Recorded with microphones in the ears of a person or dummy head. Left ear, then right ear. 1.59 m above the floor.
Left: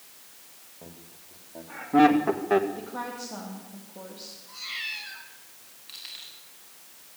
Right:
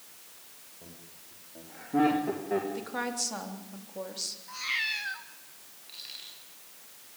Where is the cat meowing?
50° right (ahead or behind), 1.5 m.